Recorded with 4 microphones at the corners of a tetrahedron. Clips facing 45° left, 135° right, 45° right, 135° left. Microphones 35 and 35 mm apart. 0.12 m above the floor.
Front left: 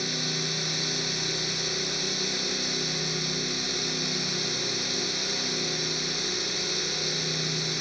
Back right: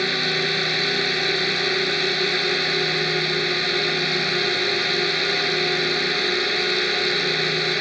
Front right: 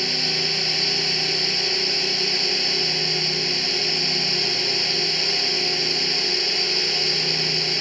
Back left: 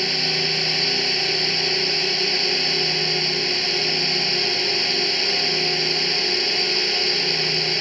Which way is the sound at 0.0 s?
145° right.